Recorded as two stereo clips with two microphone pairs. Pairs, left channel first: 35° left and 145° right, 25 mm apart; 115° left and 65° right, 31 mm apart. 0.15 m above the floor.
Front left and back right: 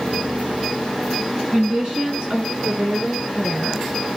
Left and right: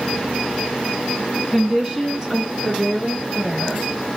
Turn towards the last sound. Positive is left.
turn(degrees=-110)